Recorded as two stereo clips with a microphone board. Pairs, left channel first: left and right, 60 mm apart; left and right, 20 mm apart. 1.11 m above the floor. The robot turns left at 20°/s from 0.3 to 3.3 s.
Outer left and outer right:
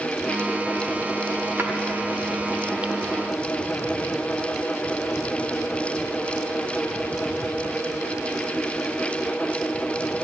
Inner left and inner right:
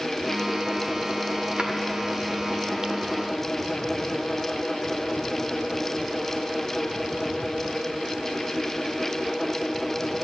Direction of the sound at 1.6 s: 45° right (ahead or behind).